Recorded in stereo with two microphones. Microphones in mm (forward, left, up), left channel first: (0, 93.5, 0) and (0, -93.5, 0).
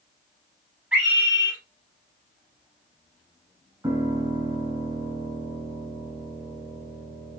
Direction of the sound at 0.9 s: 5° right (ahead or behind).